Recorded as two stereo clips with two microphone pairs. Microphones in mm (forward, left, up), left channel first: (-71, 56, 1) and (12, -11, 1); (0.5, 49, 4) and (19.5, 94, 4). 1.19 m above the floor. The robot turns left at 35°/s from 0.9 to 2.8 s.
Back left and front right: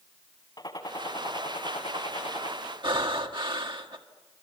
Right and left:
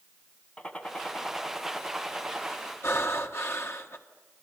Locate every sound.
0.6 s a gunshot: 175° right, 1.8 m; by 2.6 s 125° left, 1.8 m
2.8 s breathing: 85° right, 1.5 m